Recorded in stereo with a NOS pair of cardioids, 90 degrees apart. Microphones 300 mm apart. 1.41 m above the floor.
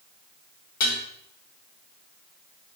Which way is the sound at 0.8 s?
65° left.